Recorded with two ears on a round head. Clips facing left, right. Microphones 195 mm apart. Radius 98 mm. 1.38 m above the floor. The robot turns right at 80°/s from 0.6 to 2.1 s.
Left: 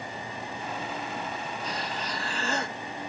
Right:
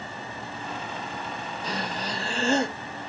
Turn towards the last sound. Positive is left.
turn(degrees=-20)